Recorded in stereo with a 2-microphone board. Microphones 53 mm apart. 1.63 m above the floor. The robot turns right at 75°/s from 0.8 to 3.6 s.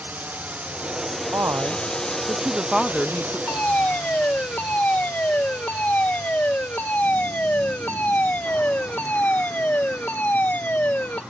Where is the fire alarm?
45° left (ahead or behind); by 11.2 s 35° left (ahead or behind).